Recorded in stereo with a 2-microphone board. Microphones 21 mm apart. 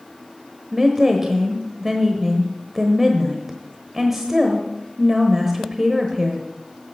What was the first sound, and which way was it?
A woman speaking, 15° right (ahead or behind).